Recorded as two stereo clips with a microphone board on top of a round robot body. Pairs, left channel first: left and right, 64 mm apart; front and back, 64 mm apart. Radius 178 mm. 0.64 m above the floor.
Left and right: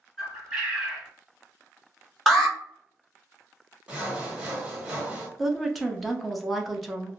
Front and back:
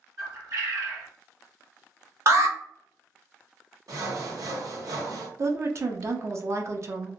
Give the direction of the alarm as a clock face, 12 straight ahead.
6 o'clock.